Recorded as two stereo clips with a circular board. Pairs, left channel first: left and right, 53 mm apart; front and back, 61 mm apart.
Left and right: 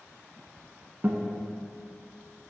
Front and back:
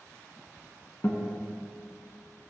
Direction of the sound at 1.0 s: 45° right.